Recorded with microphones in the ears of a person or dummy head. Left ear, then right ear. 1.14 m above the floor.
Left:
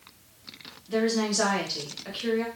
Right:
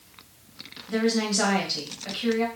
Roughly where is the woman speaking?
Centre.